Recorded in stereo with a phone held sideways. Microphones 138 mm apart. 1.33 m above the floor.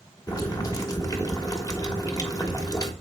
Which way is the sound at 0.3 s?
25° left (ahead or behind).